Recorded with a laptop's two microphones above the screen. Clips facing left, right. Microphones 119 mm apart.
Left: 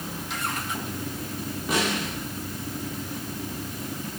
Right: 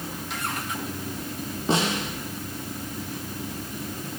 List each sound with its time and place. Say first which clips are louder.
1.7 s a snare drum: right 2 dB; 30° right (ahead or behind), 9 m